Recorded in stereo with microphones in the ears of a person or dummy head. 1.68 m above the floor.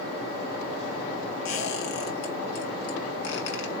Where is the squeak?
65° left (ahead or behind), 1.5 m.